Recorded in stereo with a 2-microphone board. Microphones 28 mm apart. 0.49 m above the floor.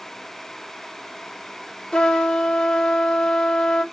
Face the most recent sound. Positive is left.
turn(degrees=20)  # may be behind; listen again after turning